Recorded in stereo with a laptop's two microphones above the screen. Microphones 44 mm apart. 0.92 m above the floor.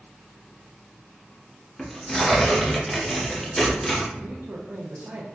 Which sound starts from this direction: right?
A man speaking, at 4.2 s.